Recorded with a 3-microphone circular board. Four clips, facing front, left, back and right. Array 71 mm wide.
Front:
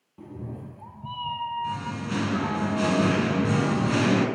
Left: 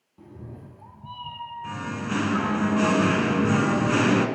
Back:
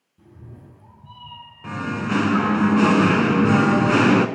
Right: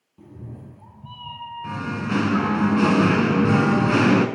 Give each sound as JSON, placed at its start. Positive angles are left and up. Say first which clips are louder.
{"t": 0.2, "sound": "a cat meowing", "louder": "right 2 dB, front 8 dB", "azimuth_deg": 5, "distance_m": 0.9}
{"t": 1.6, "sound": "singing", "louder": "right 4 dB, back 5 dB", "azimuth_deg": -165, "distance_m": 0.5}